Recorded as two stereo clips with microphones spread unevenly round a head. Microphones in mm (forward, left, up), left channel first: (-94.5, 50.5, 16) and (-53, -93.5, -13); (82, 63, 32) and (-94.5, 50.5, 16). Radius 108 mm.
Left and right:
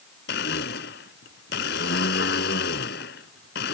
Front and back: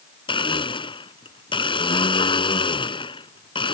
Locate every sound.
0.3 s a blender: 65° left